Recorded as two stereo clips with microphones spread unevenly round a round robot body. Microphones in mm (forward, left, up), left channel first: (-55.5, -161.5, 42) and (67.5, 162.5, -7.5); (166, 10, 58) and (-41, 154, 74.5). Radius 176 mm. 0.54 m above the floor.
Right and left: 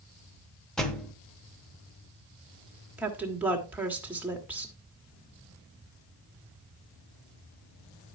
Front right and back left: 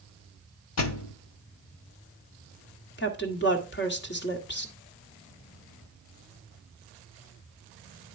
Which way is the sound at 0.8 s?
20° right.